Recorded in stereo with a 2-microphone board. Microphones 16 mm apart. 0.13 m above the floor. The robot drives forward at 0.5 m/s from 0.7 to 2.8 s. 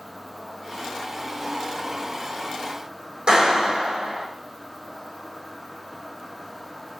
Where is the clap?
65° right (ahead or behind), 4.5 m.